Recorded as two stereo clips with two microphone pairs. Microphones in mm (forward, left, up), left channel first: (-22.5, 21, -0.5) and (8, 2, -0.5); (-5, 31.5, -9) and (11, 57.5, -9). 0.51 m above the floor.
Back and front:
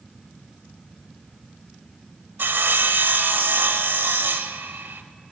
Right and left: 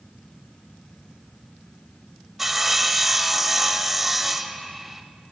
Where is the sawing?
25° right, 0.7 m.